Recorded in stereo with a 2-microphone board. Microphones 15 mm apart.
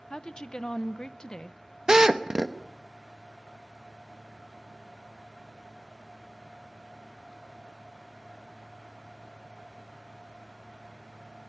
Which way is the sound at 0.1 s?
45° left (ahead or behind).